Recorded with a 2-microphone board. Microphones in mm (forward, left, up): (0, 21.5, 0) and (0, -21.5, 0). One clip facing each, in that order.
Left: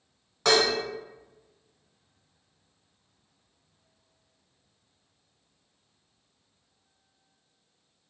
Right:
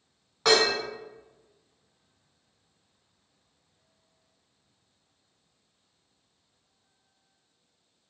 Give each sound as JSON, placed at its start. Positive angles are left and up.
{"t": 0.5, "sound": "dishes clattering", "side_deg": -5, "distance_m": 0.8}